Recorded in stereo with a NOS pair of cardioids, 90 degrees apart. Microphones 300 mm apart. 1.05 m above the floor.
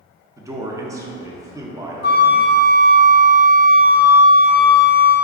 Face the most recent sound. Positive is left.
turn(degrees=35)